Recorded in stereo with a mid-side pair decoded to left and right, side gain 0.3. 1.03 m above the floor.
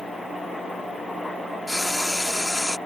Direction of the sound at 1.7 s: 15° left.